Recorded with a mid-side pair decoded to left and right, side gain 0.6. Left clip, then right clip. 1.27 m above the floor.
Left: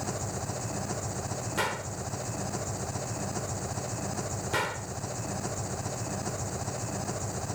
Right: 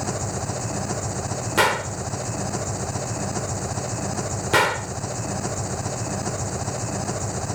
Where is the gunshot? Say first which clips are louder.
Right 12 dB; 55° right.